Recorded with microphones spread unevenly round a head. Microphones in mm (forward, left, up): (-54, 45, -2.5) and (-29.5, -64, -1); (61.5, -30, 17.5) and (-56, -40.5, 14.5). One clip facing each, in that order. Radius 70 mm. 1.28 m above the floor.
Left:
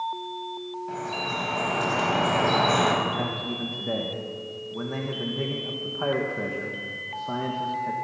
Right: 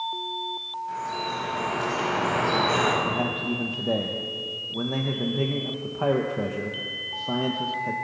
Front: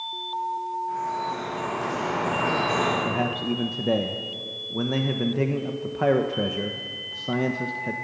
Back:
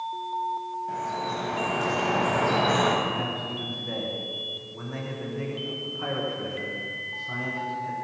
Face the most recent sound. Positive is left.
turn(degrees=-5)